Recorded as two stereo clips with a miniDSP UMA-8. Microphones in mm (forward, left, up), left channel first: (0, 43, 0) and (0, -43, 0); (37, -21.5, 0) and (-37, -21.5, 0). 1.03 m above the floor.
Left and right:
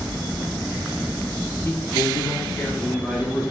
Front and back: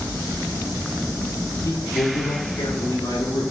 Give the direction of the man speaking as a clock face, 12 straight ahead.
11 o'clock.